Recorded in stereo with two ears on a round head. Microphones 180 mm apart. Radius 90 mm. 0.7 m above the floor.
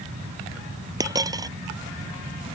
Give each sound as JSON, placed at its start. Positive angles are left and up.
{"t": 1.0, "sound": "a dropped coin", "side_deg": -20}